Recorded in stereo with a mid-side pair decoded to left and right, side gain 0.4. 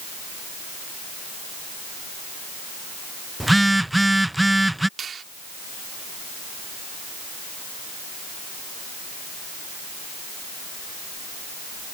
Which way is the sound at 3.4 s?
10° right.